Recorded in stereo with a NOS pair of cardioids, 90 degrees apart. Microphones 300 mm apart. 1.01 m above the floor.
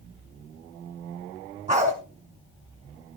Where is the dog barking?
25° right, 5 m.